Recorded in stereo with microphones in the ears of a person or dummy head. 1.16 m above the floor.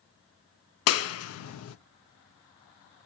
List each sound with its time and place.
0.9 s a clap: 80° left, 0.5 m